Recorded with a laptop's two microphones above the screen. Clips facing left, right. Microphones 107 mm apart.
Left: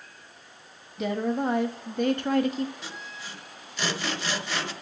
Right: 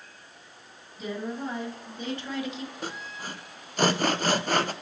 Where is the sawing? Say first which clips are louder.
Right 4 dB; 45° right (ahead or behind), 0.6 m.